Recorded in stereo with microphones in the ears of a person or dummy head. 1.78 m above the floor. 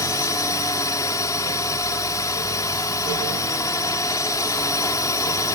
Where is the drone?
10° left (ahead or behind).